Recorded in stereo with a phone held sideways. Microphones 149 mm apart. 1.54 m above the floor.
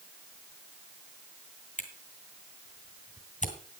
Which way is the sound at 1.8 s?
55° left (ahead or behind).